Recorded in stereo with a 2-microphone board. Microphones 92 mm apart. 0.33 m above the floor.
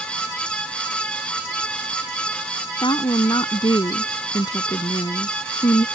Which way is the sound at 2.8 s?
60° left (ahead or behind).